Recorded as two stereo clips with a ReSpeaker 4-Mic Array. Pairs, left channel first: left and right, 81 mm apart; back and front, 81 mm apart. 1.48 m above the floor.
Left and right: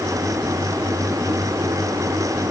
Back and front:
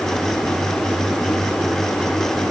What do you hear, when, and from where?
Only background noise.